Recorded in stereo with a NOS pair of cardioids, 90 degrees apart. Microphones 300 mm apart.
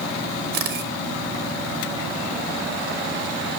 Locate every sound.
0.5 s a camera shutter: 70° right, 1.7 m